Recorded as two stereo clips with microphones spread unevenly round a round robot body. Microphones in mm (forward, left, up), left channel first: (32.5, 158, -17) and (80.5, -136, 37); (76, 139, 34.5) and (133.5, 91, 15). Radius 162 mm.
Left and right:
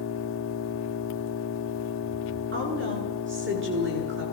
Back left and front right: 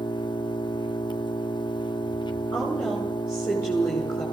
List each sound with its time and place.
0.0 s an engine running: 130° left, 1.7 m
2.5 s a woman speaking: 140° right, 7.5 m